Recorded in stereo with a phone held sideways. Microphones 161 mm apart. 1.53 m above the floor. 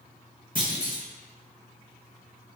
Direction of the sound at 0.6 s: 30° right (ahead or behind).